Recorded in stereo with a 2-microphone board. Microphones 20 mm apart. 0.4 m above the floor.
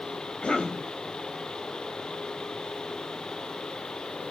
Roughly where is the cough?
Left.